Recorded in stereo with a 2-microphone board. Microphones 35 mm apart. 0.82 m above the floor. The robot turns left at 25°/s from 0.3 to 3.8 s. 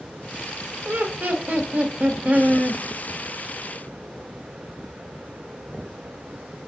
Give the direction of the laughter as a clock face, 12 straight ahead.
3 o'clock.